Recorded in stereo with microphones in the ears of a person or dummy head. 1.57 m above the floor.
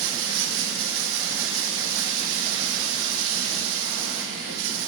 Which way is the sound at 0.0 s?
70° right (ahead or behind).